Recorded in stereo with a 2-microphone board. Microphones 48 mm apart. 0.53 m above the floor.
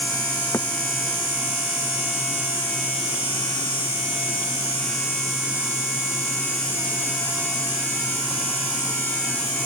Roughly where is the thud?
Left.